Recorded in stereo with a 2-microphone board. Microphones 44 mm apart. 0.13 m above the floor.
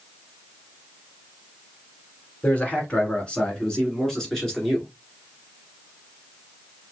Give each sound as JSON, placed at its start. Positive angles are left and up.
{"t": 2.4, "sound": "a man speaking", "side_deg": 35, "distance_m": 1.5}